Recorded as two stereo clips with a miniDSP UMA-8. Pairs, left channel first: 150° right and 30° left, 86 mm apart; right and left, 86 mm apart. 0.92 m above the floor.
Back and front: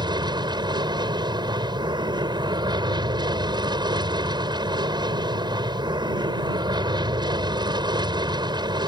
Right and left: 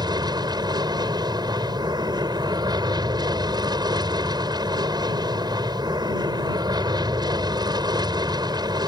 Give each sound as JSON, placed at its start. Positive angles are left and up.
{"t": 0.0, "sound": "an aircraft", "azimuth_deg": 55}